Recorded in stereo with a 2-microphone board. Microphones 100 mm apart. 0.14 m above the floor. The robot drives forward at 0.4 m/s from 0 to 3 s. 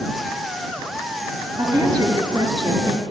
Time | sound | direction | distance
1.6 | a woman speaking | 45° right (ahead or behind) | 2 m